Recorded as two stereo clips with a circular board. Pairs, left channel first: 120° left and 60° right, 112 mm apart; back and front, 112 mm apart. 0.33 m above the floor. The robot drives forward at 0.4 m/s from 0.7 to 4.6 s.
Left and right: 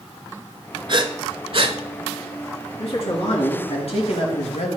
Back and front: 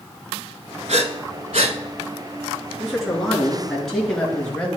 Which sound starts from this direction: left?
A man speaking, at 2.8 s.